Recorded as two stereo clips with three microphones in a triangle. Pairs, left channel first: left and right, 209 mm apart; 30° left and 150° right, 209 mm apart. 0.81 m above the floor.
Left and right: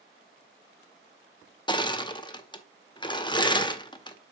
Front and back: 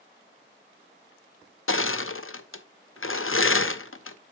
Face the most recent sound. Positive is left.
turn(degrees=25)